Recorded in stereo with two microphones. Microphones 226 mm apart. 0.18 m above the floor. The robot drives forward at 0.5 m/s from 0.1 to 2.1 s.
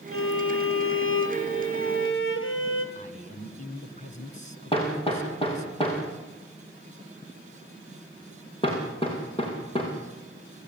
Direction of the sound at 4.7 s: 25° left (ahead or behind).